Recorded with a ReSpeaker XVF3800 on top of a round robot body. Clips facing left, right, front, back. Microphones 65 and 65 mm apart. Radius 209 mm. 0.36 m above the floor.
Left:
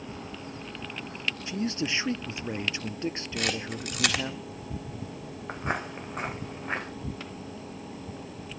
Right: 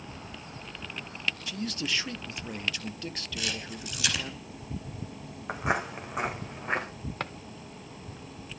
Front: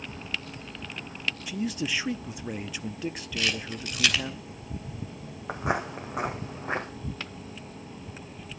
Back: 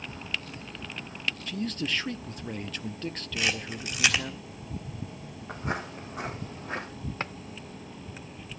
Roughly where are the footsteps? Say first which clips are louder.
Right 3 dB, front 5 dB; ahead.